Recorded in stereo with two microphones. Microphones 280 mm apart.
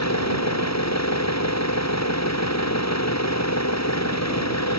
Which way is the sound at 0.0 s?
70° left (ahead or behind).